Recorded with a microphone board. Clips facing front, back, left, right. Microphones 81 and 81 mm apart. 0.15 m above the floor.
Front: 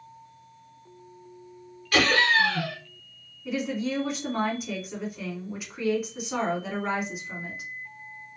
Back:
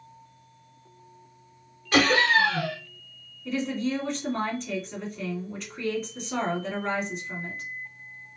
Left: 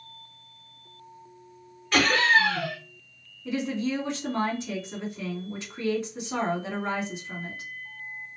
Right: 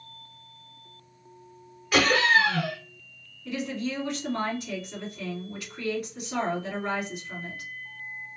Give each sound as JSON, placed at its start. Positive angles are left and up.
{"t": 1.9, "sound": "laughter", "azimuth_deg": -170, "distance_m": 1.1}
{"t": 3.5, "sound": "a woman speaking", "azimuth_deg": 70, "distance_m": 1.5}